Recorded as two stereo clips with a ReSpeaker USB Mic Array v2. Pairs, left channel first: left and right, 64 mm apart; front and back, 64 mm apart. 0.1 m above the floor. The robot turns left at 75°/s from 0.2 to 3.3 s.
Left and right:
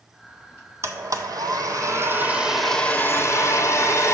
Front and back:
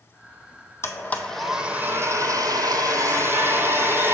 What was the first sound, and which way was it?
A blender, 45° right.